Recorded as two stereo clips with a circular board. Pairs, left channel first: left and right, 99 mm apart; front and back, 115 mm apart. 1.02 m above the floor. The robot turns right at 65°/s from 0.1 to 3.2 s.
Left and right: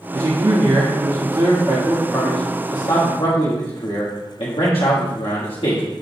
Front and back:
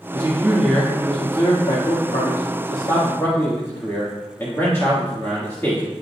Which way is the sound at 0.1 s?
130° right.